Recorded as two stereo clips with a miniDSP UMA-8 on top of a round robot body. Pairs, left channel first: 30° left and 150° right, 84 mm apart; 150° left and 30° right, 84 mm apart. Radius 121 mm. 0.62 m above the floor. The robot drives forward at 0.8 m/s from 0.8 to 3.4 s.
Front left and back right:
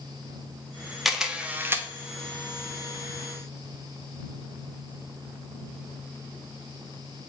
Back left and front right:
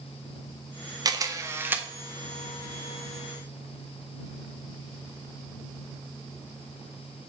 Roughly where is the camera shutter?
Ahead right.